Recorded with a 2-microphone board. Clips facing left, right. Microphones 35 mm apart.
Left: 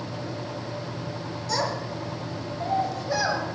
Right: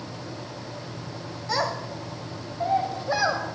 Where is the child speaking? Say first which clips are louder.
Right 1 dB; 20° right (ahead or behind), 1.2 m.